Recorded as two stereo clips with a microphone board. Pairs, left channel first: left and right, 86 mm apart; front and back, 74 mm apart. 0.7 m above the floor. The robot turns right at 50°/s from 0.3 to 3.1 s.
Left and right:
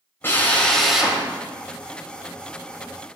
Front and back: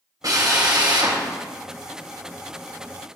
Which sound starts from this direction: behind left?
A drill, at 0.2 s.